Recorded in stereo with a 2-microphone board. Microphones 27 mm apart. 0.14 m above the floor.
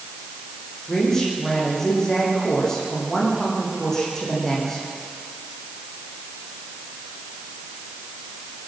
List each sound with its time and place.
0.9 s a woman speaking: 20° left (ahead or behind), 8.5 m